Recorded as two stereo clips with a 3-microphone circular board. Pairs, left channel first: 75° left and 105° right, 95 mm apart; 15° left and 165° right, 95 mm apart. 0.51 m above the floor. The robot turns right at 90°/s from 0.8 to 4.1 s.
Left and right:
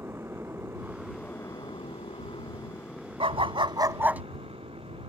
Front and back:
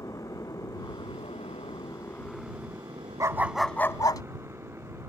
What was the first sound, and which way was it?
A motorcycle, 40° right.